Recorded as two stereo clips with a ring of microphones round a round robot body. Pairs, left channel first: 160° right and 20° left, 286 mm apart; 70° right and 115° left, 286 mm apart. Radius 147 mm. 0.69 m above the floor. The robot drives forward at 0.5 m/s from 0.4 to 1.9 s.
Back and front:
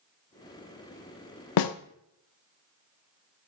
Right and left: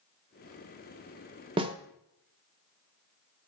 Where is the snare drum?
175° right, 0.5 m.